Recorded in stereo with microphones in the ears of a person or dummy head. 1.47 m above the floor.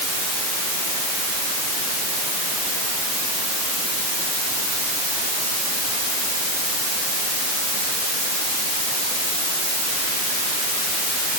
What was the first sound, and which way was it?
Only background noise.